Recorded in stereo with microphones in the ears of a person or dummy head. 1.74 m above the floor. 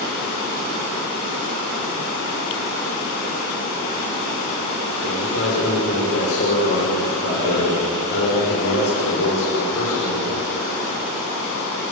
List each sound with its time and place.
5.0 s a man speaking: 80° left, 6 m